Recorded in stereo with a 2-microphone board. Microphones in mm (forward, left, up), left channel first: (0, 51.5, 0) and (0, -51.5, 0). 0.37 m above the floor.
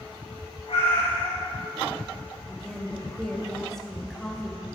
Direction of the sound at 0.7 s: 65° left (ahead or behind).